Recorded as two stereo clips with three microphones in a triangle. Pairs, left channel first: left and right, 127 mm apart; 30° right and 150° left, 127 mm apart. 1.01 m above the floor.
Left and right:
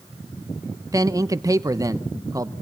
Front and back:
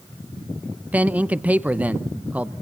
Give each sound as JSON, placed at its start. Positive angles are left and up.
{"t": 0.9, "sound": "a man speaking", "azimuth_deg": -135, "distance_m": 0.7}